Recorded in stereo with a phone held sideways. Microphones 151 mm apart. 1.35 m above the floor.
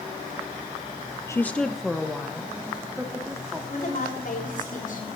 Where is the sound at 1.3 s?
20° left (ahead or behind), 0.5 m; by 3.6 s 10° right (ahead or behind), 3 m.